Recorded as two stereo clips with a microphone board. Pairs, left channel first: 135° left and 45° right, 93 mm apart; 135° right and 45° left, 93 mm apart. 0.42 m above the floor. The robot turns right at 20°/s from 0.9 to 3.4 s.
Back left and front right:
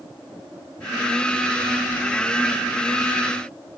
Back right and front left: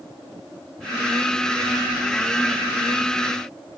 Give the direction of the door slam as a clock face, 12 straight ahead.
I don't hear a door slam.